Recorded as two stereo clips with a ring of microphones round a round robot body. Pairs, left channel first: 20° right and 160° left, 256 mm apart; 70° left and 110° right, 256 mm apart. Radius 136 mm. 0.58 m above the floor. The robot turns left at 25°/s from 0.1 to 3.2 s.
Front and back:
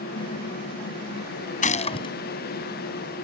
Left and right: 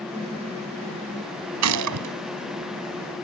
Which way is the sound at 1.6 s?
85° right.